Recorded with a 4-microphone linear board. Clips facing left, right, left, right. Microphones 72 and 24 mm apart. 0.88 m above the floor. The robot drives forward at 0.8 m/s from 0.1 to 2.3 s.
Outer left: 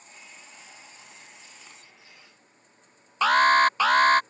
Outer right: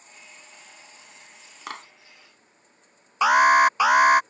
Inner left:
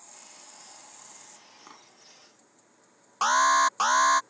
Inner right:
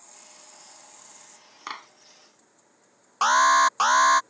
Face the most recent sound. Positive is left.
turn(degrees=-15)  # may be behind; listen again after turning